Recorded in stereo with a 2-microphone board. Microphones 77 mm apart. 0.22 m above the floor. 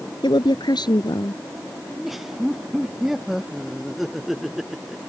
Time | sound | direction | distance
0.2 | a woman speaking | 70° left (ahead or behind) | ?
1.9 | laughter | 5° right (ahead or behind) | ?